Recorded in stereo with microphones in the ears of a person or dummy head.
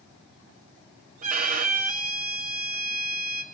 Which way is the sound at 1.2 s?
35° right (ahead or behind).